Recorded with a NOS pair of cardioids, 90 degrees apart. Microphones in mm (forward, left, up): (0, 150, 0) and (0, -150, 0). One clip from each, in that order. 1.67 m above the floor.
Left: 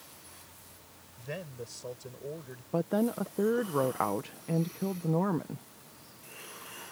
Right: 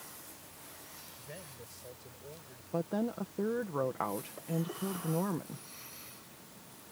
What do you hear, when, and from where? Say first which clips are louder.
1.2 s a man speaking: left 12 dB; 70° left
2.7 s a woman speaking: left 5 dB; 30° left